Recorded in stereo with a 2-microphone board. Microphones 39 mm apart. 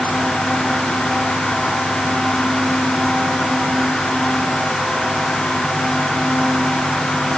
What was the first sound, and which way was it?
Only background noise.